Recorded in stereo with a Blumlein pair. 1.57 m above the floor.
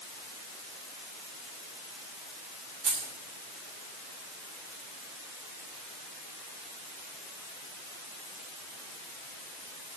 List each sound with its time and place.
2.8 s keys jangling: 15° right, 3.5 m